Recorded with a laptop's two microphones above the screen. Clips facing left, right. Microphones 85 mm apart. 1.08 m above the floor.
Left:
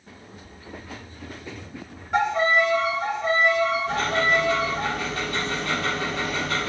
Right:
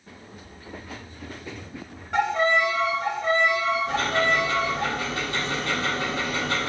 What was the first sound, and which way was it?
A violin, 5° left (ahead or behind).